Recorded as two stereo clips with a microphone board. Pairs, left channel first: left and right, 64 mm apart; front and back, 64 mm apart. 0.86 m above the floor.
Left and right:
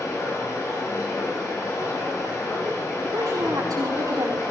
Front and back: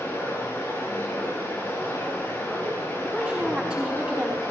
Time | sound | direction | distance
0.0 | running water | 60° left | 9.5 m
3.0 | a woman speaking | 105° right | 6 m